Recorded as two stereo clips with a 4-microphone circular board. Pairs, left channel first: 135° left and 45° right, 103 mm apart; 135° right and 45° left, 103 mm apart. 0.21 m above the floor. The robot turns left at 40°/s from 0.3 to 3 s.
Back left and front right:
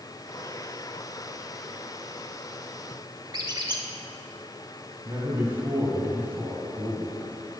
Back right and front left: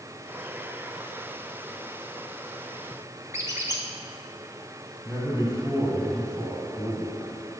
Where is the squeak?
10° right, 0.8 m.